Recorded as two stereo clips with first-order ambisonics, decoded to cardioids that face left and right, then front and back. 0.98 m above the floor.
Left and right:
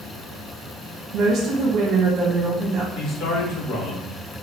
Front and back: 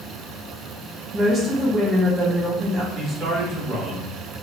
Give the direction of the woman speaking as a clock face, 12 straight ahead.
4 o'clock.